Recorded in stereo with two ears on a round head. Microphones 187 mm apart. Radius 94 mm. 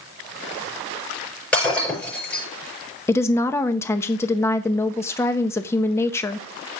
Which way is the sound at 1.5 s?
10° left (ahead or behind).